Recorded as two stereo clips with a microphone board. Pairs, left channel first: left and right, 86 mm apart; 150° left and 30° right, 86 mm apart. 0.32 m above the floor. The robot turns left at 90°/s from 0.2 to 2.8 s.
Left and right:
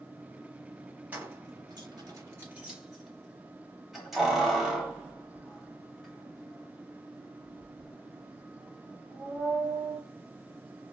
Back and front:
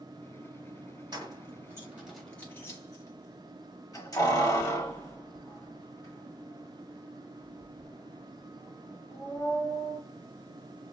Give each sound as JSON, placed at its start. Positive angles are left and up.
{"t": 1.1, "sound": "keys jangling", "azimuth_deg": -25, "distance_m": 0.9}